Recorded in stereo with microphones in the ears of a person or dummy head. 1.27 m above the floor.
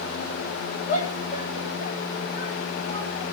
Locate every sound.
0.9 s a shout: 35° left (ahead or behind), 3.5 m; by 3.2 s 45° left (ahead or behind), 5 m